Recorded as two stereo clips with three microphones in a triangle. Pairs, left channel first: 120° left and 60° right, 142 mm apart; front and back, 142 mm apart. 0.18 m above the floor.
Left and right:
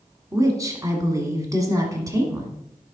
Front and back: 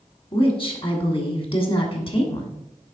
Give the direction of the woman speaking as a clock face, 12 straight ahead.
12 o'clock.